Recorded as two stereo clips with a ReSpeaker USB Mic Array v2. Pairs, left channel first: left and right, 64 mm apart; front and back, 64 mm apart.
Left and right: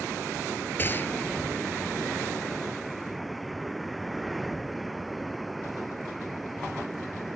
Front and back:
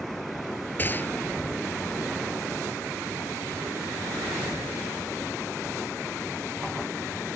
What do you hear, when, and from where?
0.8 s a gunshot: 45° left